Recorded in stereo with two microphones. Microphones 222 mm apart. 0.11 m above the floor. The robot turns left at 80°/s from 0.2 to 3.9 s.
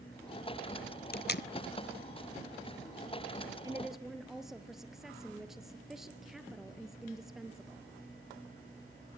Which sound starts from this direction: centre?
A woman speaking, at 3.6 s.